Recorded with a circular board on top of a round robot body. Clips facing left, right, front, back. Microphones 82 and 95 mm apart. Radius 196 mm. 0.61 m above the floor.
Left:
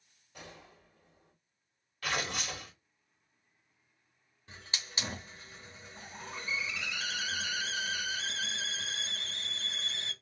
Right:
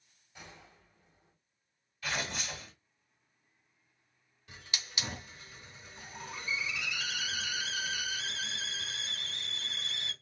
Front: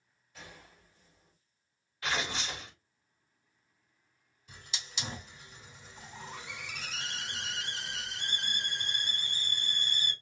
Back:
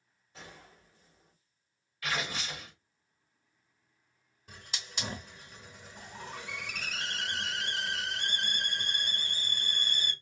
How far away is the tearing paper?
About 1.3 m.